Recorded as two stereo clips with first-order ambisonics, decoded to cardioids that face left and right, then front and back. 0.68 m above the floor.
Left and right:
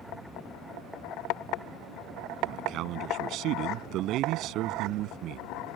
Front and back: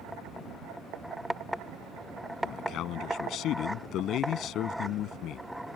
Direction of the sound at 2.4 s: 45° right.